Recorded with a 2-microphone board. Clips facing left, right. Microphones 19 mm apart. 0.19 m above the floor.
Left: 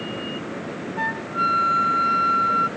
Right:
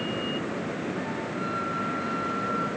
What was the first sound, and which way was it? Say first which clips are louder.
A flute: left 7 dB; 70° left (ahead or behind).